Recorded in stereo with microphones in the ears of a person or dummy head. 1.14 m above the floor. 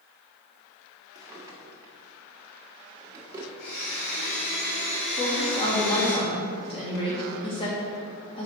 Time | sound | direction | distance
1.1 | a drawer | 15° right (ahead or behind) | 1.5 m
3.6 | a blender | 65° left (ahead or behind) | 2.5 m
5.2 | a woman speaking | 30° left (ahead or behind) | 2 m